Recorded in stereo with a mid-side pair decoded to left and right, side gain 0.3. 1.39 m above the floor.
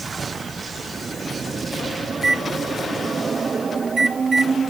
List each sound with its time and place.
2.1 s a microwave: 55° right, 1.4 m